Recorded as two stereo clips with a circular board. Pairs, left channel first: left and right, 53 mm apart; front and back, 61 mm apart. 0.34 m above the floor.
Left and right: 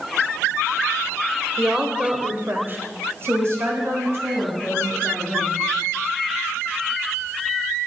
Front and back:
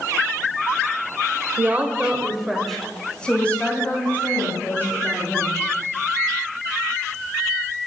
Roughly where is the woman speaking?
Behind.